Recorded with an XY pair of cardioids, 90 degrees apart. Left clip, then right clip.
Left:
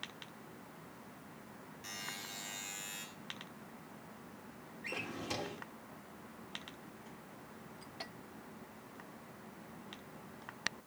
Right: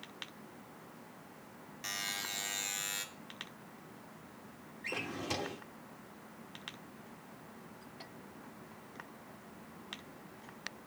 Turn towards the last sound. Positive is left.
turn(degrees=-25)